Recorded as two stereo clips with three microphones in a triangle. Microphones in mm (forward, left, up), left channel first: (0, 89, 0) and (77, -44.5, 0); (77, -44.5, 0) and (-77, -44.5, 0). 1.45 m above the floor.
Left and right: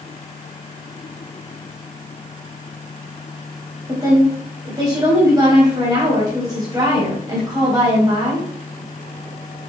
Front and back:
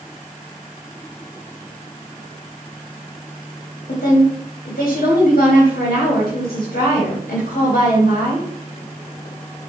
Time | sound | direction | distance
3.9 | a woman speaking | 5° left | 1.1 m